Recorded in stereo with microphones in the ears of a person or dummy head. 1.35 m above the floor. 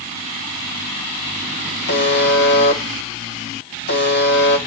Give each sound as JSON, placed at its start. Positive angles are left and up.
{"t": 1.9, "sound": "a buzzer", "side_deg": 60, "distance_m": 1.2}